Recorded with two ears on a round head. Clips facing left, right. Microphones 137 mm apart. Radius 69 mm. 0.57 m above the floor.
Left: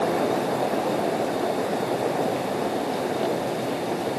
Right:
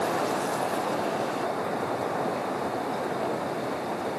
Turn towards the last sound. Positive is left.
No sound to turn to.